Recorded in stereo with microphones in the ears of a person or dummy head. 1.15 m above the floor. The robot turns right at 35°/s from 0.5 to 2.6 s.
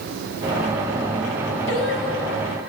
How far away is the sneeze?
I don't hear a sneeze.